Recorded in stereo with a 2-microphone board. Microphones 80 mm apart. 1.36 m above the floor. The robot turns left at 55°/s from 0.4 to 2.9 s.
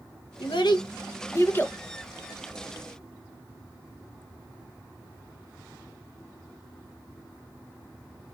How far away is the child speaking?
About 0.8 m.